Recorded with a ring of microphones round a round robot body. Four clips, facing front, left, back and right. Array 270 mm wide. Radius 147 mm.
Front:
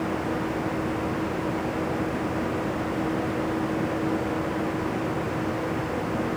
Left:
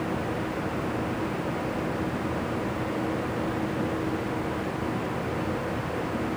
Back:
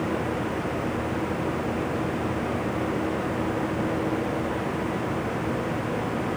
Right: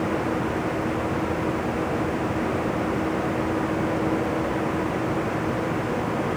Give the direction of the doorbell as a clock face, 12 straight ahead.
I don't hear a doorbell.